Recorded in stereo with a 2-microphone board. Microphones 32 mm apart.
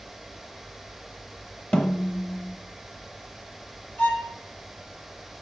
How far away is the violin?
About 2 m.